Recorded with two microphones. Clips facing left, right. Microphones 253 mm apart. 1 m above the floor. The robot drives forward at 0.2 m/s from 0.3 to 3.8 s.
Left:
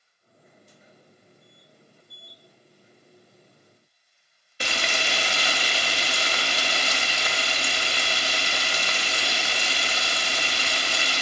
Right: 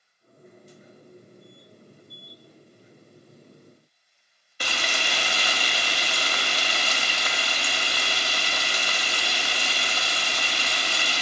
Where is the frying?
25° left (ahead or behind), 0.8 m.